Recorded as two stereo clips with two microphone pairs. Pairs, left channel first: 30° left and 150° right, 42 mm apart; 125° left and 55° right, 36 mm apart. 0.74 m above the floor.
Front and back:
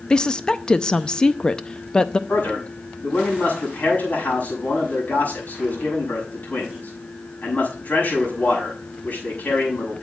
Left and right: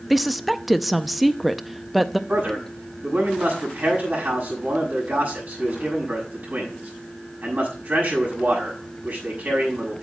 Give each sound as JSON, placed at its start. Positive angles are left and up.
{"t": 0.1, "sound": "a woman speaking", "azimuth_deg": 30, "distance_m": 0.5}
{"t": 2.3, "sound": "a man speaking", "azimuth_deg": -15, "distance_m": 6.5}